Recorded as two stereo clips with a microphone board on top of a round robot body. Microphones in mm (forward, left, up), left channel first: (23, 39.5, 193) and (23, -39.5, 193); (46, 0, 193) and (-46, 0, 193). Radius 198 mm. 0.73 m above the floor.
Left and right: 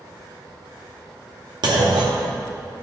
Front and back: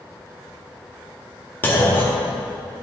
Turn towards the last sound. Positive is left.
turn(degrees=-70)